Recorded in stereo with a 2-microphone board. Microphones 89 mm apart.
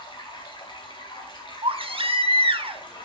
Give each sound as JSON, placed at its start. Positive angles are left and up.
{"t": 0.0, "sound": "running water", "side_deg": 65, "distance_m": 2.5}
{"t": 1.6, "sound": "a baby crying", "side_deg": -80, "distance_m": 0.8}